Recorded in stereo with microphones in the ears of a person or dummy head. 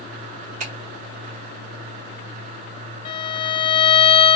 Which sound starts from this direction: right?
A finger snap, at 0.6 s.